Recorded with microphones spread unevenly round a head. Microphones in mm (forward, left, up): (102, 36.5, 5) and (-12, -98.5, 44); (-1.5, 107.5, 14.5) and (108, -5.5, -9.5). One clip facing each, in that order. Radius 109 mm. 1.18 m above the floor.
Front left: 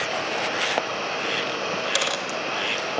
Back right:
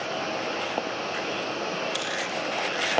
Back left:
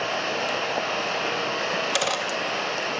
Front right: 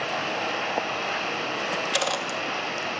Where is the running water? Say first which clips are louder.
Front left 2 dB, back left 2 dB; 95° left, 2.5 m.